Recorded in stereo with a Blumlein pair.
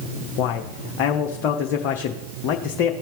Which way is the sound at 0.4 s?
40° left.